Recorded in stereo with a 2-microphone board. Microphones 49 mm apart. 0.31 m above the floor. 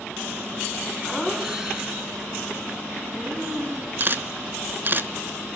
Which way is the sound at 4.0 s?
40° right (ahead or behind).